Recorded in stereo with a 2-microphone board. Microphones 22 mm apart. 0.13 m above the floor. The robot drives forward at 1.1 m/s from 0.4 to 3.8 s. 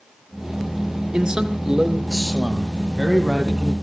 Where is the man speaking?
40° right (ahead or behind), 1.9 m; by 3.7 s 15° right (ahead or behind), 4 m.